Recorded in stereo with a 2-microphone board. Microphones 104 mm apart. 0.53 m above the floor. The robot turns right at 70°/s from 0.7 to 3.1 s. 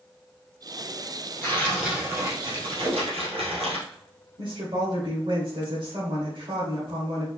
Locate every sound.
1.4 s tearing paper: 150° left, 2 m; by 3.8 s 90° right, 2 m
2.8 s a whoosh: 65° right (ahead or behind), 2.5 m
4.4 s a woman speaking: 60° right (ahead or behind), 1.9 m